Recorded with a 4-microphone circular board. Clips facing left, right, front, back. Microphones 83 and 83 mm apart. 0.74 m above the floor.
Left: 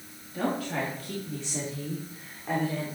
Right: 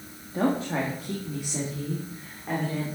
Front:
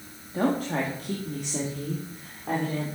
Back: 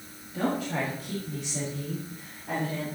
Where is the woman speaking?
45° right, 1.5 m; by 2.9 s 5° left, 3 m.